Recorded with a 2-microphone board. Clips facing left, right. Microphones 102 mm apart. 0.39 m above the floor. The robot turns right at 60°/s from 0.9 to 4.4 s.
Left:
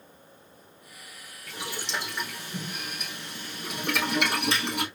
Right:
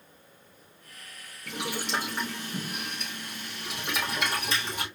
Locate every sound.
1.5 s boiling: 80° right, 3 m; by 4.9 s 85° left, 3 m